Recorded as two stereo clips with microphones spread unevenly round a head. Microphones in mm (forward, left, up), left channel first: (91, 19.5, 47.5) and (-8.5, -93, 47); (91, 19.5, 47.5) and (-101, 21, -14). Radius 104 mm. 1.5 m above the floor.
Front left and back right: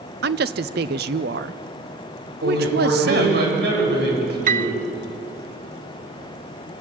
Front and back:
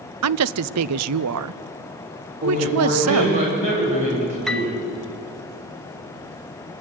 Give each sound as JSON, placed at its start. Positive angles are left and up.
{"t": 0.2, "sound": "a woman speaking", "azimuth_deg": -170, "distance_m": 0.6}
{"t": 2.4, "sound": "a man speaking", "azimuth_deg": -120, "distance_m": 7.0}
{"t": 4.5, "sound": "a piano", "azimuth_deg": -90, "distance_m": 0.6}